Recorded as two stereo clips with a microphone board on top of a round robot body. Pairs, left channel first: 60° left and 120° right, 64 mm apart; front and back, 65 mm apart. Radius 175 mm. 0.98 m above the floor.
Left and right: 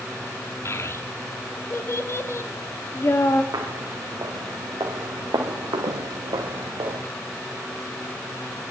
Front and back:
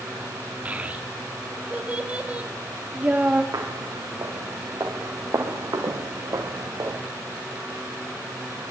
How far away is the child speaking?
About 2.5 m.